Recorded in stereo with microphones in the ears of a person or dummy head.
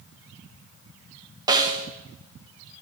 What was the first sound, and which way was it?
A snare drum, 20° right (ahead or behind).